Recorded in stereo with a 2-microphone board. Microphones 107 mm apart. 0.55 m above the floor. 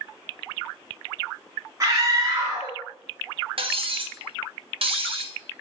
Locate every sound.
1.8 s a scream: 30° right (ahead or behind), 0.8 m
3.6 s cutlery clinking: 60° right (ahead or behind), 0.6 m